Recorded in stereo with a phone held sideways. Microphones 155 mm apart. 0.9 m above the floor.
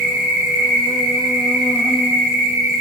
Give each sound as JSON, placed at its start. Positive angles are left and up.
{"t": 0.0, "sound": "an insect", "side_deg": -25, "distance_m": 0.8}